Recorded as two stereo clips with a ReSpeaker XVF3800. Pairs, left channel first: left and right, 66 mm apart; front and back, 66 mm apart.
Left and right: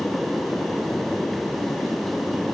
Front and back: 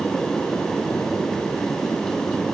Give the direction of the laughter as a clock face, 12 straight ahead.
I don't hear laughter.